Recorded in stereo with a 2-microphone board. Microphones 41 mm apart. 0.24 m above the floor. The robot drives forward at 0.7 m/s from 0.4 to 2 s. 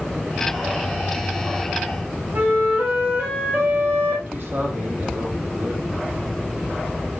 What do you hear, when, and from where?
2.3 s a flute: 45° right (ahead or behind), 7.5 m
4.3 s a man speaking: 50° right (ahead or behind), 8.5 m